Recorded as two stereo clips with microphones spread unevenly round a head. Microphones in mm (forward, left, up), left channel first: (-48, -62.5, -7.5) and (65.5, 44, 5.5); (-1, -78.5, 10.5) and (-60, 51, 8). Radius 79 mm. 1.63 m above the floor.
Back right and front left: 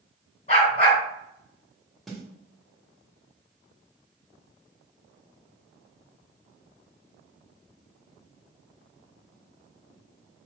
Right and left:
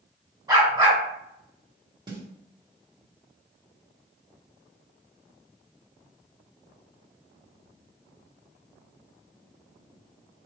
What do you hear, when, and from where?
0.5 s a dog barking: 175° left, 2.5 m
2.1 s a snare drum: 125° left, 1.2 m